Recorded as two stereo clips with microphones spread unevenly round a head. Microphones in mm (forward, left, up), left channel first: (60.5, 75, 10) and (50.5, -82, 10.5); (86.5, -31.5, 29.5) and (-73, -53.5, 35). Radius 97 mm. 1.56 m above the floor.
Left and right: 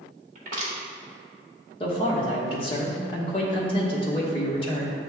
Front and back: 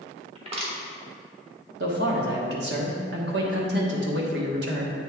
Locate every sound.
0.3 s crushing: 130° right, 1.3 m
1.8 s a man speaking: 150° left, 1.0 m